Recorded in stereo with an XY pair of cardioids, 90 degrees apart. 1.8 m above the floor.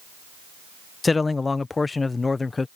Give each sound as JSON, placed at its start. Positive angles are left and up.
{"t": 1.0, "sound": "a man speaking", "azimuth_deg": 30}